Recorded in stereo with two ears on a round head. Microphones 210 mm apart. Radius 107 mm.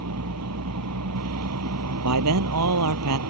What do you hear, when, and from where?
0.0 s a vehicle: 80° right
2.0 s a man speaking: 85° right